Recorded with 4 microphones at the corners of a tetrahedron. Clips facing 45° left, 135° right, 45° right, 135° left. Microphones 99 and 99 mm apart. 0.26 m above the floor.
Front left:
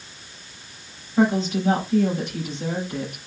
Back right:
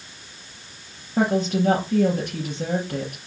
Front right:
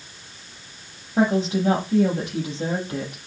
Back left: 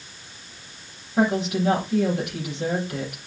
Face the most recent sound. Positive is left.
turn(degrees=-105)